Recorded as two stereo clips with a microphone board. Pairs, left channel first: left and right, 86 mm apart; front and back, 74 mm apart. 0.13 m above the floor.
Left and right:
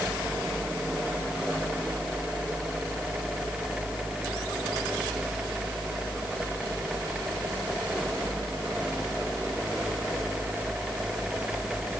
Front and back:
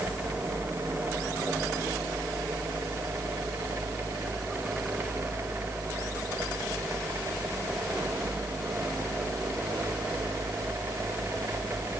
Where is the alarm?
No alarm in this recording.